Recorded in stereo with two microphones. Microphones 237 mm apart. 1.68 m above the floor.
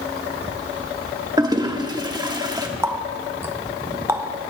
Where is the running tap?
10° right (ahead or behind), 1.0 m.